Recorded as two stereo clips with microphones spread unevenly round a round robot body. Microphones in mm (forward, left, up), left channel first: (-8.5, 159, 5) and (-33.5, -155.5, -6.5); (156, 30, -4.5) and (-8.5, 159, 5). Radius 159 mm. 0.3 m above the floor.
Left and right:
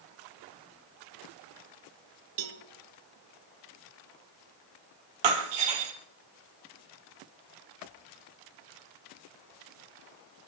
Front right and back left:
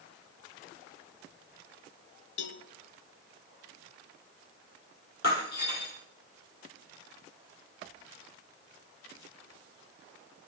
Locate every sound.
2.4 s a cowbell: 55° right, 0.6 m
5.2 s breaking glass: 100° right, 1.8 m